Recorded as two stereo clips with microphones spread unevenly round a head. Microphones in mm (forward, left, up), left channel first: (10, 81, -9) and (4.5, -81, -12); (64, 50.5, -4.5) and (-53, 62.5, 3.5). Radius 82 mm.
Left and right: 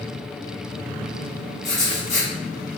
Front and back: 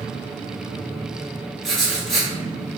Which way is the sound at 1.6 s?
85° left.